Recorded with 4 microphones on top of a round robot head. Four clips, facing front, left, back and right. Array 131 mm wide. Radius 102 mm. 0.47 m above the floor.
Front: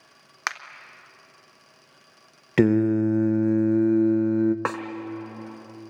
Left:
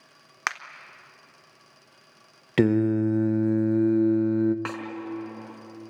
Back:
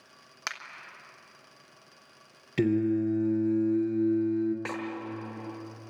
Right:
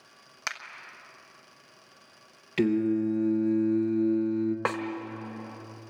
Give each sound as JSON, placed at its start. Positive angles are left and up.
{"t": 0.5, "sound": "a finger snap", "azimuth_deg": 50, "distance_m": 1.2}
{"t": 2.6, "sound": "singing", "azimuth_deg": 30, "distance_m": 0.7}
{"t": 4.7, "sound": "a snare drum", "azimuth_deg": -30, "distance_m": 1.2}